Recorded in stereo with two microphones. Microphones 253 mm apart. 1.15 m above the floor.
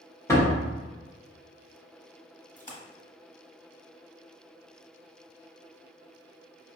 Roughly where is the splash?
Left.